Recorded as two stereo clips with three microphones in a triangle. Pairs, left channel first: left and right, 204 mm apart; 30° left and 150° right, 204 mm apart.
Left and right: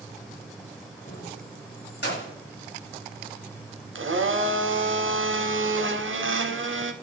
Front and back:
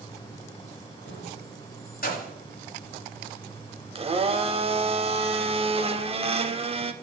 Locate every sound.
1.1 s keys jangling: 50° left, 1.2 m; by 2.3 s 70° left, 1.7 m
4.0 s a blender: 85° right, 0.6 m